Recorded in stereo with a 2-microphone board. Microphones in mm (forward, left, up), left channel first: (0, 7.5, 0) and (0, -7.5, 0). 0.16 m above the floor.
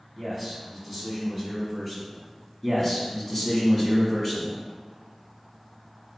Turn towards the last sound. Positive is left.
turn(degrees=25)  # may be behind; listen again after turning